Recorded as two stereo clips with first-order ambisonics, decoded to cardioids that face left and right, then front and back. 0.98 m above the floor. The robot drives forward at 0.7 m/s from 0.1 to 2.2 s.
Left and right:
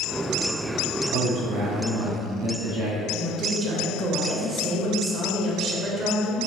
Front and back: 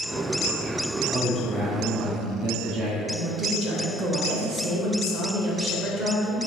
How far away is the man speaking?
About 0.9 m.